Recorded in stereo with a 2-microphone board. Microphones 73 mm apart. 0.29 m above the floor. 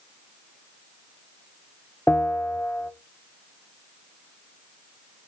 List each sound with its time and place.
2.1 s a bell: 20° left (ahead or behind), 0.5 m